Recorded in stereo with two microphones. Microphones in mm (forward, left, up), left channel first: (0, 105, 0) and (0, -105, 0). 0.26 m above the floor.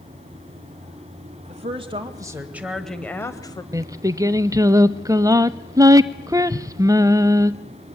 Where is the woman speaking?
30° right (ahead or behind), 1.3 m; by 3.6 s 20° left (ahead or behind), 1.2 m.